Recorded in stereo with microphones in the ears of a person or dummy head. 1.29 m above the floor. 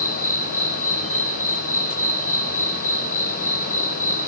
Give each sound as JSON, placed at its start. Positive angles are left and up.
{"t": 0.0, "sound": "an insect", "side_deg": -15, "distance_m": 1.5}